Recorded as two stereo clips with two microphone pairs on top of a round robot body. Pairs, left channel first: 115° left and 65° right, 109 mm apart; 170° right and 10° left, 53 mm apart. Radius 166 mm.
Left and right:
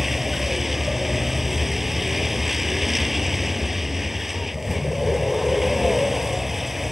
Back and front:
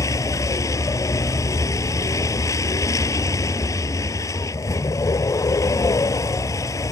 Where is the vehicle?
155° right.